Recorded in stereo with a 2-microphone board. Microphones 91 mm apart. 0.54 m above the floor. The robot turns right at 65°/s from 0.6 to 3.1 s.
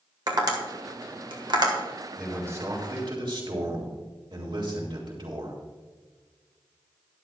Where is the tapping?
50° right (ahead or behind), 2 m; by 1.7 s 45° right (ahead or behind), 2 m.